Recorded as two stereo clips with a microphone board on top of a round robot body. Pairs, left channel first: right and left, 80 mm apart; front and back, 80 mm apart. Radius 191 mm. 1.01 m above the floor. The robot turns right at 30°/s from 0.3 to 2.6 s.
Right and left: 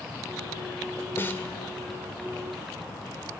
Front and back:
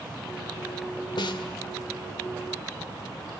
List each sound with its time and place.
1.2 s a snare drum: 25° right, 1.9 m; by 1.6 s 15° right, 1.9 m